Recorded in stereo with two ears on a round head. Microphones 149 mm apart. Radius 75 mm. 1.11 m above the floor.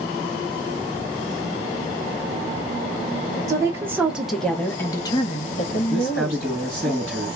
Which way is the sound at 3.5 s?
20° right (ahead or behind).